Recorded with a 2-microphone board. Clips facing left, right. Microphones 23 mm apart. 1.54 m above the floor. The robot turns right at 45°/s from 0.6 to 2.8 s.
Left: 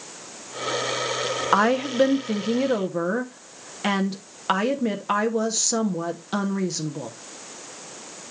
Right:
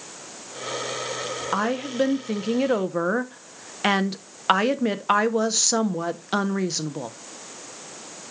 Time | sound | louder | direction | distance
1.5 | a woman speaking | left 5 dB | 150° left | 0.8 m